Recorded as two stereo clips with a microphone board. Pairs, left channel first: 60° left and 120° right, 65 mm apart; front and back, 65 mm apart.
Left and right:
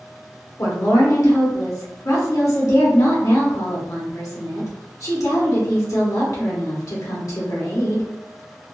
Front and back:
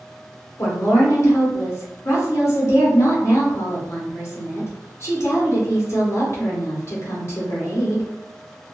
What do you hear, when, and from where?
0.6 s a woman speaking: 40° left, 1.1 m